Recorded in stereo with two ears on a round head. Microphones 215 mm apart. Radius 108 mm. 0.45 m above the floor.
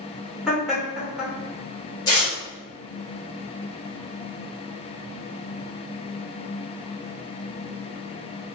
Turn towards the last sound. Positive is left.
turn(degrees=15)  # may be behind; listen again after turning